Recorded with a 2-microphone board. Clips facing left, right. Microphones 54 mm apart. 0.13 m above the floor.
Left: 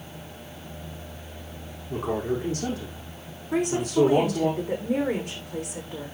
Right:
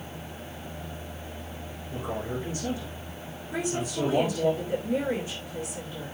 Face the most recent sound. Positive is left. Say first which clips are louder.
# left 7 dB
turn(degrees=75)  # may be behind; listen again after turning